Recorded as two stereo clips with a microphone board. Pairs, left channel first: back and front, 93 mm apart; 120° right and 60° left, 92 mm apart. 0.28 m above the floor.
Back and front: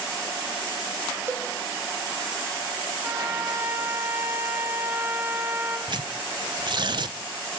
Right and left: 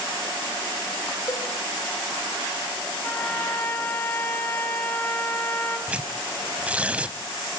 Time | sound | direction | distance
1.3 | a cowbell | 65° right | 4.5 m
3.0 | a trumpet | 60° right | 1.3 m
5.9 | tearing paper | 15° right | 0.7 m